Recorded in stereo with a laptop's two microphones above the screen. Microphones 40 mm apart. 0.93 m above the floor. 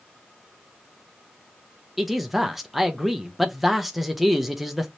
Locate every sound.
2.0 s a man speaking: 5° right (ahead or behind), 0.6 m